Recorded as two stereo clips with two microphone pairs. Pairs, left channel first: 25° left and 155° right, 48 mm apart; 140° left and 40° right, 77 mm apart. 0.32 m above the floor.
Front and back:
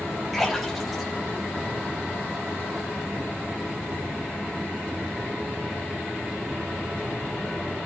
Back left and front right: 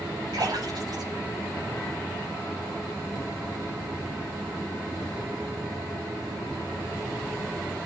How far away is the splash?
About 7.5 m.